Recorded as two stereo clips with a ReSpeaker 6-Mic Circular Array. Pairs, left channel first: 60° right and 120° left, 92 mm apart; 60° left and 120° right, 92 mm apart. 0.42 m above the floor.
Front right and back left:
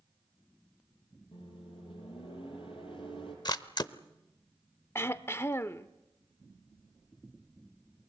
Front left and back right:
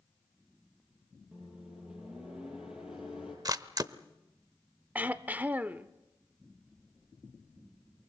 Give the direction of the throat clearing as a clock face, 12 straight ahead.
2 o'clock.